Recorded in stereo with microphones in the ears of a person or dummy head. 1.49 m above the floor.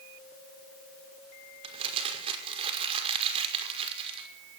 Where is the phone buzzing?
No phone buzzing in this recording.